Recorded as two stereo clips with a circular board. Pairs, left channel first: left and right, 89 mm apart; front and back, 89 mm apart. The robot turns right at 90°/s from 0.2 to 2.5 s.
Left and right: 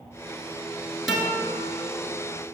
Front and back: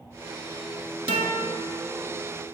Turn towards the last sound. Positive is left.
turn(degrees=-50)